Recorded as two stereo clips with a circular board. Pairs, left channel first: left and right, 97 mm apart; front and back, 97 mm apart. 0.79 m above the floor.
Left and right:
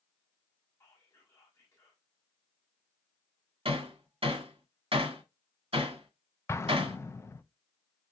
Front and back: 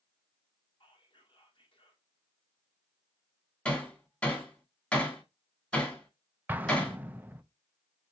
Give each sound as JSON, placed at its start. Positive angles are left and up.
{"t": 0.8, "sound": "whispering", "azimuth_deg": 30, "distance_m": 2.0}
{"t": 3.6, "sound": "hammering", "azimuth_deg": -80, "distance_m": 1.7}
{"t": 6.5, "sound": "an explosion", "azimuth_deg": 125, "distance_m": 0.5}